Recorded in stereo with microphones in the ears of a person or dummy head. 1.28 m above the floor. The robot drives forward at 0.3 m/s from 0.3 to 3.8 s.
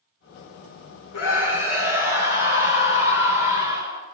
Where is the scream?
70° left (ahead or behind), 3.5 m; by 4.0 s 60° left (ahead or behind), 4 m.